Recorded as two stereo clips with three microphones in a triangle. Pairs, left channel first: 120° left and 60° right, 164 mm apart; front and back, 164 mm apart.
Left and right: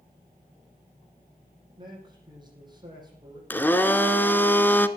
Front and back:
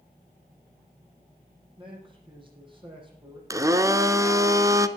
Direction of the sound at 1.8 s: 120° right.